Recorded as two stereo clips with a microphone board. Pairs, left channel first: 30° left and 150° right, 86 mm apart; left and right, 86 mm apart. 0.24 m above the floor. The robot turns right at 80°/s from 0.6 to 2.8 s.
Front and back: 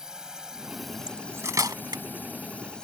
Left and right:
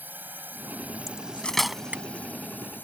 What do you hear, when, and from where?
0.0 s a drone: 80° right; by 2.9 s 95° left
1.1 s cutlery clinking: 130° left; by 2.0 s 150° right